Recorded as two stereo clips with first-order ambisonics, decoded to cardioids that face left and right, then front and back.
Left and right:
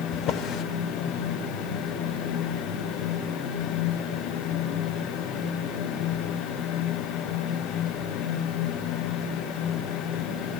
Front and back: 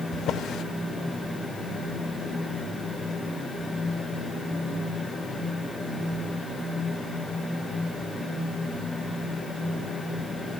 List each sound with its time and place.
0.1 s a drawer: 50° left, 0.7 m